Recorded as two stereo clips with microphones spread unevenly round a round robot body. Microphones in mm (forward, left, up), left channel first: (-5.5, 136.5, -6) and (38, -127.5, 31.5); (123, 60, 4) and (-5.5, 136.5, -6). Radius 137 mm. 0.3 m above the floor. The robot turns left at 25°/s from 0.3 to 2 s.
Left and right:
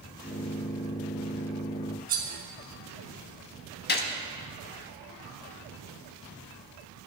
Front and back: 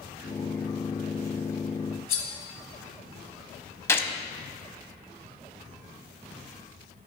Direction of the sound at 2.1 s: 20° right.